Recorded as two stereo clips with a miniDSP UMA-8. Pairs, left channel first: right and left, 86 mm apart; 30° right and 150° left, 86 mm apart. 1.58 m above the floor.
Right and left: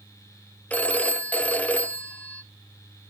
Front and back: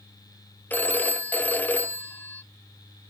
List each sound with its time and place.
0.7 s a phone ringing: 50° right, 0.5 m